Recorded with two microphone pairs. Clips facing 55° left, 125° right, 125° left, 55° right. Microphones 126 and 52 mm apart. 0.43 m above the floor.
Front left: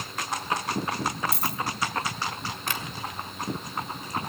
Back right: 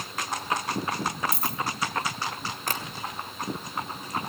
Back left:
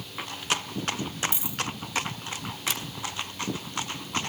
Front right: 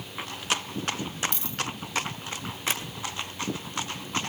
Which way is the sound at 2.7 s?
95° right.